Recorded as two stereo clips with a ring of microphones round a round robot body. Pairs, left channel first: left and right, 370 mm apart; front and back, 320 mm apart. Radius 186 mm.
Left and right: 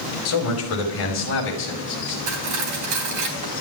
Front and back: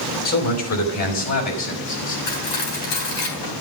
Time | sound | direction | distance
0.2 | a man speaking | 40° left | 5 m
2.3 | cutlery clinking | 45° right | 3.5 m